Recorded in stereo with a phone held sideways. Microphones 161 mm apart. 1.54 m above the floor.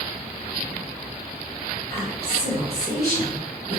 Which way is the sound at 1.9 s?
75° right (ahead or behind).